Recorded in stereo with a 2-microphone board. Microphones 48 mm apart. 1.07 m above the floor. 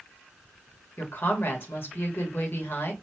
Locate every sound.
1.0 s a woman speaking: 50° left (ahead or behind), 1.5 m